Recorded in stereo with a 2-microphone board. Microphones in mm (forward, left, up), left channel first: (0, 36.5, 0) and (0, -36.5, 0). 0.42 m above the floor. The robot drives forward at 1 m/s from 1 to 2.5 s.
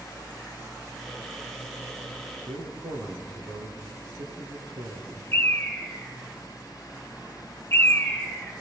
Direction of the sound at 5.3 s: 30° left (ahead or behind).